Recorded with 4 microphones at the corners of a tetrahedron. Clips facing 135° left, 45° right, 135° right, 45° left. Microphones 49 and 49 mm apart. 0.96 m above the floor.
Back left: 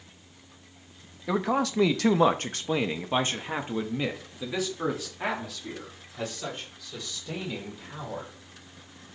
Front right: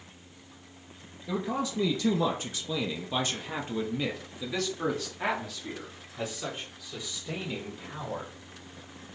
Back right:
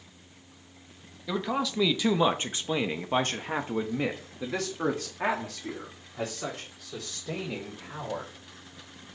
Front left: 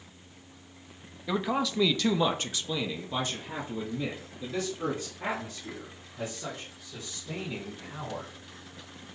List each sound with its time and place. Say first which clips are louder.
1.3 s a man speaking: back left 5 dB, front left 1 dB; 125° left, 1.0 m; by 8.3 s 125° right, 3 m